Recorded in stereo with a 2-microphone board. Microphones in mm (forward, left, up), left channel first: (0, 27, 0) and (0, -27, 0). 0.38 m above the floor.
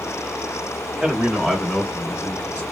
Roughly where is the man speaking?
Right.